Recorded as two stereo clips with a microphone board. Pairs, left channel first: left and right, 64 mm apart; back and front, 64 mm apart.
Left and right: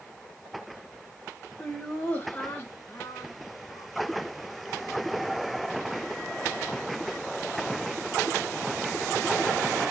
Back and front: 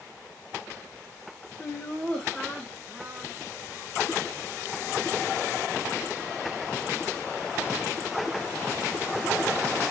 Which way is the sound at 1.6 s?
160° left.